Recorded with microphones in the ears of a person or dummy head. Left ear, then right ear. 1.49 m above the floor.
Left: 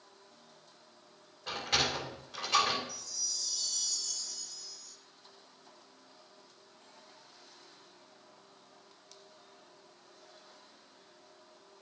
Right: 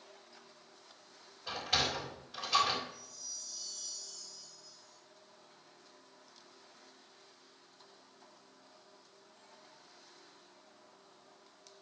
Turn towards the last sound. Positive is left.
turn(degrees=60)  # may be behind; listen again after turning